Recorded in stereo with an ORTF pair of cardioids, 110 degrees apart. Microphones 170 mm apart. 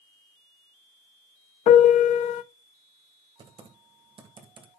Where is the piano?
55° left, 0.6 m.